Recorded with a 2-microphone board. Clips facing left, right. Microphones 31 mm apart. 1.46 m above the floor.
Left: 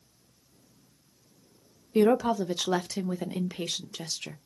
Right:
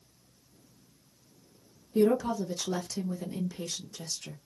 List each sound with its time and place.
1.9 s a woman speaking: 60° left (ahead or behind), 0.5 m